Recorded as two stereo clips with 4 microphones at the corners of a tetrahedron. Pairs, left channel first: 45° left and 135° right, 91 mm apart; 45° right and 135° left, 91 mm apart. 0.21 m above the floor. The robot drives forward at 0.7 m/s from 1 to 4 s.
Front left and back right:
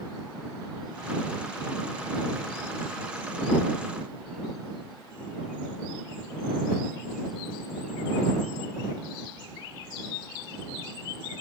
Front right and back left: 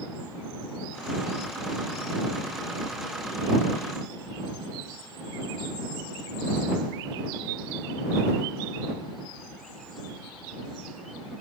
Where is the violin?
No violin in this recording.